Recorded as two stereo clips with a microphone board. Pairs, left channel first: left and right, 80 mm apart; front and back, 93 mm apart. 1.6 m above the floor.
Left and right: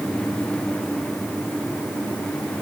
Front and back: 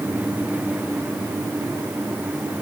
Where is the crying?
No crying in this recording.